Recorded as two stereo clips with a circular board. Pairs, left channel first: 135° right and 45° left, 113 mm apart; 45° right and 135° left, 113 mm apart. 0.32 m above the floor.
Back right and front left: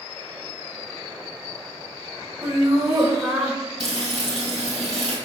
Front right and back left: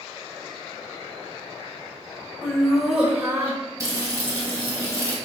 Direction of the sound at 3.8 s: 75° left.